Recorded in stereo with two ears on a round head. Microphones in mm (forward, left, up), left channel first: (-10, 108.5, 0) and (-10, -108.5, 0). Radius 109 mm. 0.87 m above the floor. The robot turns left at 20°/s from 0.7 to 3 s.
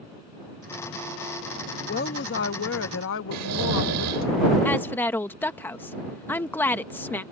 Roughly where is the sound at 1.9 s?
Left.